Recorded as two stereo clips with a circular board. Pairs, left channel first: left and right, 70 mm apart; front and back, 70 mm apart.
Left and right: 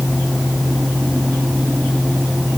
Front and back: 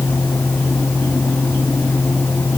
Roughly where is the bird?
No bird in this recording.